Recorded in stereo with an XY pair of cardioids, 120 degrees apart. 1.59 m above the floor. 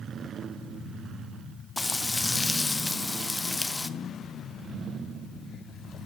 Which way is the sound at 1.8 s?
15° left.